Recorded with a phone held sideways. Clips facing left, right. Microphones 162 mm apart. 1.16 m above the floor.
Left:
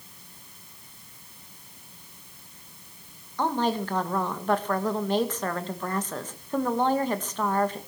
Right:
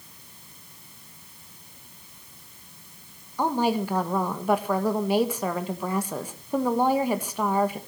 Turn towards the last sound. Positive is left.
turn(degrees=-10)  # may be behind; listen again after turning